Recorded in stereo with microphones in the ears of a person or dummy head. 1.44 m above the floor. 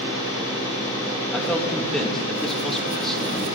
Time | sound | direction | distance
1.3 | a man speaking | 5° left (ahead or behind) | 2.5 m